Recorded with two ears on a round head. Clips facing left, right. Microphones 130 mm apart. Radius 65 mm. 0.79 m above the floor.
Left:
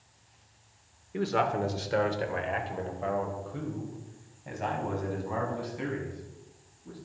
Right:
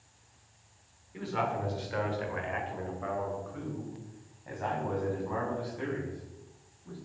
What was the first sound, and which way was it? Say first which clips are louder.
A man speaking: left 5 dB; 70° left (ahead or behind).